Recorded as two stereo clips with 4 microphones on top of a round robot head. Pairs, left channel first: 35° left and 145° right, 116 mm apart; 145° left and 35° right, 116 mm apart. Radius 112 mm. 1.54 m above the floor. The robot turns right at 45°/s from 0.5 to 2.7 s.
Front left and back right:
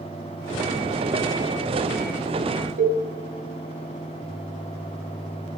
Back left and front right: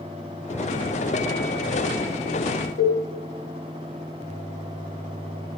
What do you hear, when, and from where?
2.8 s a cowbell: 155° right, 1.7 m